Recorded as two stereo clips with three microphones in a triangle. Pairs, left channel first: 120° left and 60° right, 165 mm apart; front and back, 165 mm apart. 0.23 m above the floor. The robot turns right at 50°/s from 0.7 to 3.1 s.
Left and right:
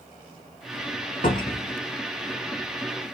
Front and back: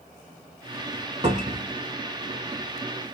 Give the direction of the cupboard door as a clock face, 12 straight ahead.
7 o'clock.